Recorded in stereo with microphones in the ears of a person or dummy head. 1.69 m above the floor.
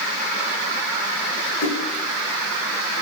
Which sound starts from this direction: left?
A splash, at 1.6 s.